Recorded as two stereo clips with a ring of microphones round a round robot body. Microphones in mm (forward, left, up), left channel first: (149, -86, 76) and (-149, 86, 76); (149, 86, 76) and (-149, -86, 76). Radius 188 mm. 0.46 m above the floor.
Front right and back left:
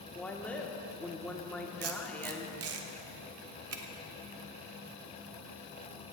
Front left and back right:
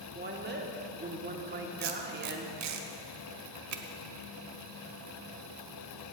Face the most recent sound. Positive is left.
turn(degrees=-175)